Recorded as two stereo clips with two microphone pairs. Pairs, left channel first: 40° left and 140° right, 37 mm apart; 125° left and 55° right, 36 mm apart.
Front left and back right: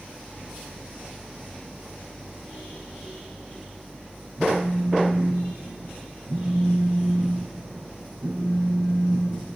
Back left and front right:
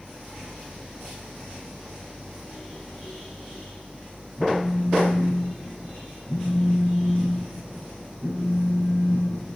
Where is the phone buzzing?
95° right, 3.5 m.